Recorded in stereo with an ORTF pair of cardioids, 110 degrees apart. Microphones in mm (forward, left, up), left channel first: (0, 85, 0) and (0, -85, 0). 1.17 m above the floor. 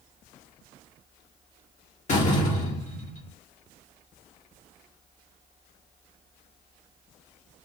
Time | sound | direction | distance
2.1 | a door slam | 45° left | 1.0 m